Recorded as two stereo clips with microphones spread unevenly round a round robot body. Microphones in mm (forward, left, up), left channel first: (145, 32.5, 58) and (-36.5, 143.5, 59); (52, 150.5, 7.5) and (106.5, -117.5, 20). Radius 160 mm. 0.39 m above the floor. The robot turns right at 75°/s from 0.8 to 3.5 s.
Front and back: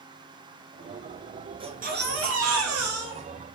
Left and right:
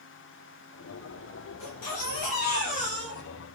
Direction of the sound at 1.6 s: 80° left.